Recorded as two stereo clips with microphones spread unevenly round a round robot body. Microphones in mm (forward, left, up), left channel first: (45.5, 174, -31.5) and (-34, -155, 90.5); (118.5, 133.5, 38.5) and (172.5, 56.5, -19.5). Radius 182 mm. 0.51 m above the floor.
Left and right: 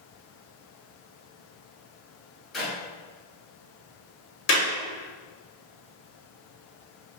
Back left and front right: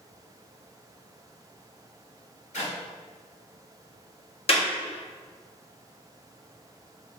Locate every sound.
2.5 s a clap: 155° left, 1.9 m
4.5 s a clap: 85° left, 1.2 m